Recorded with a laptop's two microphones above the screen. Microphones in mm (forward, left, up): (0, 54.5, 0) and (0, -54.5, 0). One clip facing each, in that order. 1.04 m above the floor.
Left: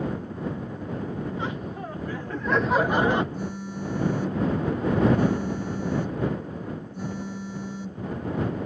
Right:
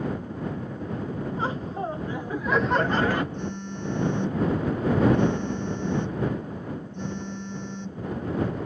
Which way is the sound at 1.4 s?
35° right (ahead or behind).